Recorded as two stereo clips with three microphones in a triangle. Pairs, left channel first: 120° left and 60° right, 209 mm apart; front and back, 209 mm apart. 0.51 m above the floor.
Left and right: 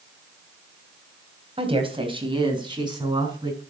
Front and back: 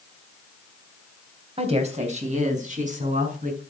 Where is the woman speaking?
120° right, 3.5 m; by 3.6 s 130° right, 6.5 m.